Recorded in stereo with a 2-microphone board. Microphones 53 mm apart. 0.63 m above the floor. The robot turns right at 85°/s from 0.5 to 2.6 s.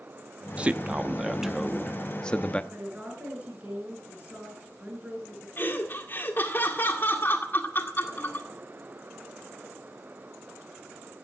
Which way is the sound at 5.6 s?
45° left (ahead or behind).